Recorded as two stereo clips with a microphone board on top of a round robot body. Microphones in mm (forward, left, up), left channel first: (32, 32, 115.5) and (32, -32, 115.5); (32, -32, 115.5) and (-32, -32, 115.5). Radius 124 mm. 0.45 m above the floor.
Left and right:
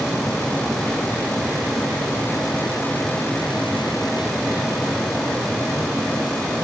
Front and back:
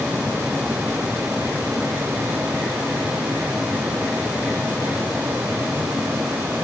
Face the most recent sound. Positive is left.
No sound to turn to.